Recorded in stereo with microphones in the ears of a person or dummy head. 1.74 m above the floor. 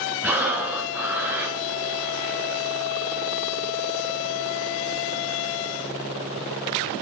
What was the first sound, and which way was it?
Breathing, 5° right (ahead or behind).